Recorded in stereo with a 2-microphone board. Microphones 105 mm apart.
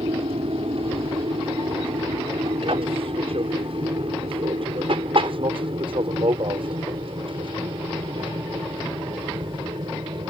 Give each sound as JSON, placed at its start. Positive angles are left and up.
{"t": 0.0, "sound": "an aircraft", "side_deg": -65}